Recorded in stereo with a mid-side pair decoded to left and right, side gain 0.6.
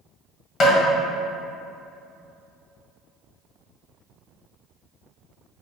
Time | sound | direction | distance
0.6 | tapping | 45° left | 1.5 m